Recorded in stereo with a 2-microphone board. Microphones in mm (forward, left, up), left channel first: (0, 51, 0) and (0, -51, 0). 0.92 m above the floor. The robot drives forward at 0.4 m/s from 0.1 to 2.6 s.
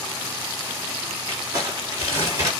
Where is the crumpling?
35° right (ahead or behind), 3.5 m; by 2.5 s 30° right (ahead or behind), 4 m.